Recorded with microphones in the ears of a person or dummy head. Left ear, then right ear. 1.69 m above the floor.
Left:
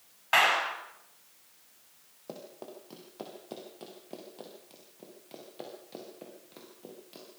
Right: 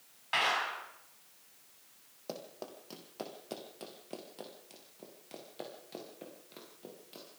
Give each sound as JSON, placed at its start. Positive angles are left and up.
{"t": 0.3, "sound": "a clap", "side_deg": 35, "distance_m": 6.5}
{"t": 2.3, "sound": "running footsteps", "side_deg": -25, "distance_m": 4.0}